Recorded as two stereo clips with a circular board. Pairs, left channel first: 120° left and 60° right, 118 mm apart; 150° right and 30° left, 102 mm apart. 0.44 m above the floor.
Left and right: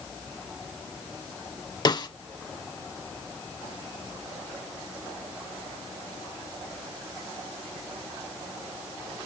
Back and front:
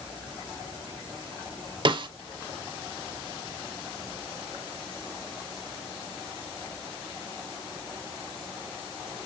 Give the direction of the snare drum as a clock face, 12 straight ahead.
10 o'clock.